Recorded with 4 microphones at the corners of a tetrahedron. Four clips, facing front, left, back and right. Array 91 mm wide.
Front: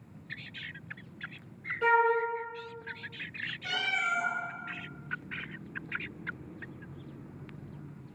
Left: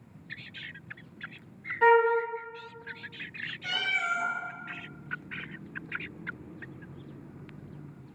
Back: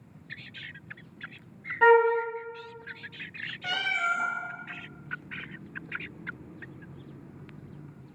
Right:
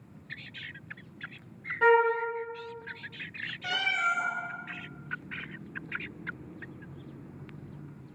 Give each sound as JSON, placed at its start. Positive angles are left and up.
{"t": 1.8, "sound": "a flute", "azimuth_deg": 180, "distance_m": 0.7}
{"t": 3.6, "sound": "a cat meowing", "azimuth_deg": -150, "distance_m": 0.9}